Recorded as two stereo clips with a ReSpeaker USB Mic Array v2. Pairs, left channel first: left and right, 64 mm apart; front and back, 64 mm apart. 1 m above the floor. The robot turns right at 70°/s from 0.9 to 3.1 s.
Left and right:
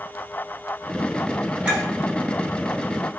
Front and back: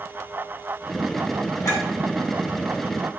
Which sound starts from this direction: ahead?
A clink, at 1.6 s.